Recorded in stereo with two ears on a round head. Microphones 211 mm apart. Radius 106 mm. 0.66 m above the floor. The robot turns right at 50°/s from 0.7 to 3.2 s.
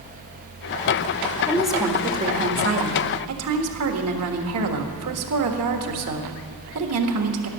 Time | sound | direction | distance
1.5 | a woman speaking | 170° left | 1.6 m